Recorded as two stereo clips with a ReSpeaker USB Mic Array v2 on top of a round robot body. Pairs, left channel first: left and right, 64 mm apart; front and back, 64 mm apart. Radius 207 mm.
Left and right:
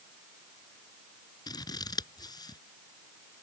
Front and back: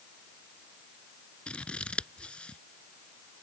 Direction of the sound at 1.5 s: 75° left.